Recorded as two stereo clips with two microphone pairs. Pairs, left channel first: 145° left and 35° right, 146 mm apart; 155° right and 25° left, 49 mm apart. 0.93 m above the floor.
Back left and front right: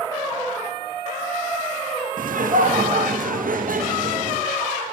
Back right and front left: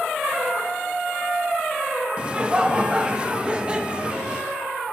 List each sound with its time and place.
2.2 s laughter: 45° right, 0.6 m